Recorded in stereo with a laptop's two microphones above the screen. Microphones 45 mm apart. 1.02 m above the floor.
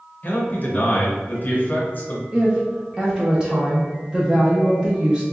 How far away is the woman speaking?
About 0.5 m.